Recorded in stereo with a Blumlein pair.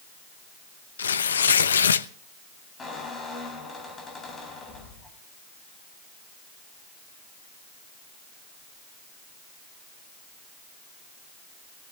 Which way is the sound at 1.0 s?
70° left.